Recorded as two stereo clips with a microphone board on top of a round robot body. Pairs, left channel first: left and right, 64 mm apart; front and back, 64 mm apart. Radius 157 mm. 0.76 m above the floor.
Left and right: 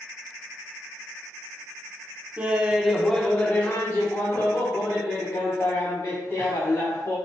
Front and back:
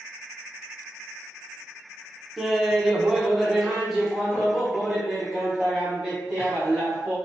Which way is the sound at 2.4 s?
95° right.